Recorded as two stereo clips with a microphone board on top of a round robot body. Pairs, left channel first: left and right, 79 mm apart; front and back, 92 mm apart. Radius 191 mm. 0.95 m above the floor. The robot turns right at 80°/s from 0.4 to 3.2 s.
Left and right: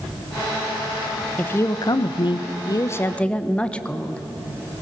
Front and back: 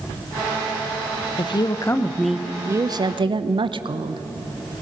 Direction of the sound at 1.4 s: 20° left.